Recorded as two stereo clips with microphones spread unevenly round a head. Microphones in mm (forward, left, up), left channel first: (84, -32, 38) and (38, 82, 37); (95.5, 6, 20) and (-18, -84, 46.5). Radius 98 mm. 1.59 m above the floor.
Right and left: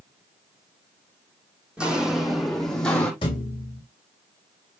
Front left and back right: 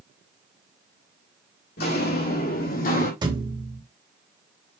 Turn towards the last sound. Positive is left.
turn(degrees=-115)